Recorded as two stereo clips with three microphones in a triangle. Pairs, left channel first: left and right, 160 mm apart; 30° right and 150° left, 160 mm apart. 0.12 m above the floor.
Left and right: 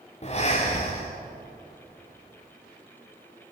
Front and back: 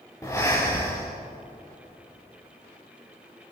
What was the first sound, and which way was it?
Breathing, 40° left.